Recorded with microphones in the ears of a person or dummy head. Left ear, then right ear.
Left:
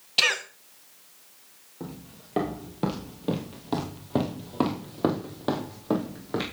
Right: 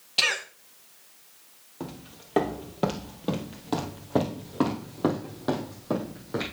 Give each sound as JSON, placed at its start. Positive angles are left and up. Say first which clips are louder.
{"t": 0.2, "sound": "a cough", "louder": "left 2 dB", "side_deg": 10, "distance_m": 1.0}
{"t": 1.8, "sound": "footsteps", "louder": "right 2 dB", "side_deg": -30, "distance_m": 2.0}